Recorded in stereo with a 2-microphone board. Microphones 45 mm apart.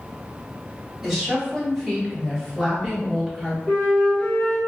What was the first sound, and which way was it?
A woman speaking, centre (ahead or behind).